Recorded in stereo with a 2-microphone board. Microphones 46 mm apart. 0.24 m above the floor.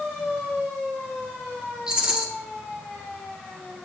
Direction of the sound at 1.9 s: 15° right (ahead or behind).